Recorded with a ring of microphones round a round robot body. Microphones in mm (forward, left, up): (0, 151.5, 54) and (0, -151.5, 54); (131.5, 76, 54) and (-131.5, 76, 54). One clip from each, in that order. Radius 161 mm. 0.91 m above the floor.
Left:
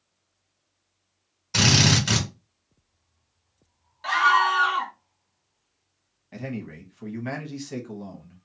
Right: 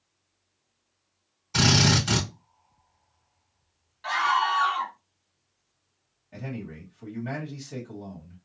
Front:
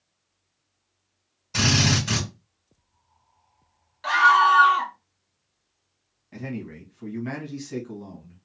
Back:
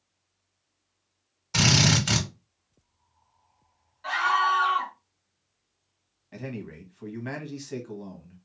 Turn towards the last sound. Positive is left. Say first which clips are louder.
# left 3 dB, front 2 dB
turn(degrees=120)